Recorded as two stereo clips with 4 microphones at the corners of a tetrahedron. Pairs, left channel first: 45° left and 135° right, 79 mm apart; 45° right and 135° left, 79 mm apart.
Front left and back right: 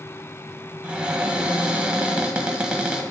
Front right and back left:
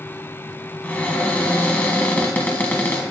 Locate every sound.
0.8 s a cupboard door: 80° right, 1.3 m